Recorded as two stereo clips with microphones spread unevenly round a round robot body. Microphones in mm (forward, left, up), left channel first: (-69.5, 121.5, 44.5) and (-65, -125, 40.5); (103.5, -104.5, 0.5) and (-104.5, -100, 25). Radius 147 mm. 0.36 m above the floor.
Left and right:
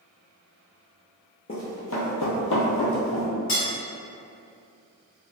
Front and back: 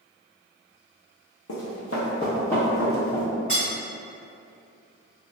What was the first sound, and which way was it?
Running footsteps, 30° left.